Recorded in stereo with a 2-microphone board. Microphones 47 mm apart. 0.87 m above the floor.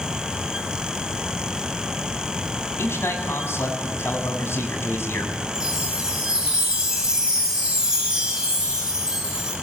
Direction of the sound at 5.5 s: 10° right (ahead or behind).